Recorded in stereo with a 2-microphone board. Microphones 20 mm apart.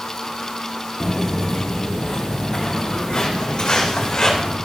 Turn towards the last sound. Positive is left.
turn(degrees=40)  # may be behind; listen again after turning